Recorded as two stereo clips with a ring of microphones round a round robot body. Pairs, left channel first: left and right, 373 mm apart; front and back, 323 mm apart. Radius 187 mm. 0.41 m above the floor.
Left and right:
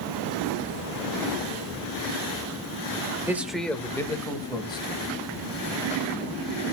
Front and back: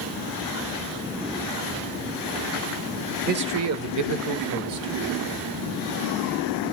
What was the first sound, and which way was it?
A man speaking, 165° right.